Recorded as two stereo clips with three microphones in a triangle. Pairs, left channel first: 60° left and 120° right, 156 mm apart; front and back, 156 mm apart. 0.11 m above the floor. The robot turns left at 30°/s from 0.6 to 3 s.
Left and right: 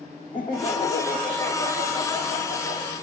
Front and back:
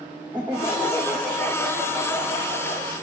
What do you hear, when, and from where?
0.3 s laughter: 115° left, 4 m; by 2.9 s 45° left, 4 m